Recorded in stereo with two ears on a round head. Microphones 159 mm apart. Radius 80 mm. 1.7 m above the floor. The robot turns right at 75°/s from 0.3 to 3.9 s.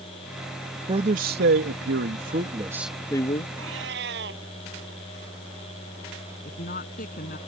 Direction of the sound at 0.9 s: 155° right.